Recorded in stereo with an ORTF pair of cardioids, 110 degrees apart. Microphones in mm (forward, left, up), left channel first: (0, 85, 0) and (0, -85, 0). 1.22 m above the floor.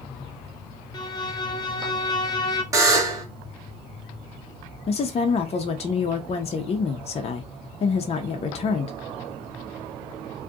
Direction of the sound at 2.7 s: 20° right.